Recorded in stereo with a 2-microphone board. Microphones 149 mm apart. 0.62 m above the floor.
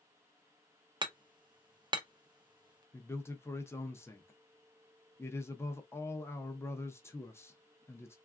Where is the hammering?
30° right (ahead or behind), 0.6 m.